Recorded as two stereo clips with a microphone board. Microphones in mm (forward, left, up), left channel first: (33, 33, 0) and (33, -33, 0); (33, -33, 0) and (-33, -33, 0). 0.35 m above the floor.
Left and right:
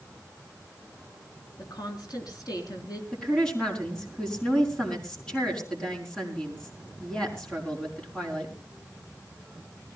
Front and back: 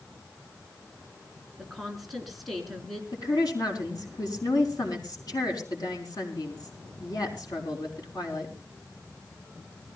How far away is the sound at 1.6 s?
About 3.5 m.